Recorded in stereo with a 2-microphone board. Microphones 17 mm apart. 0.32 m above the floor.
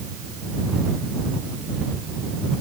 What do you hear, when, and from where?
Only background noise.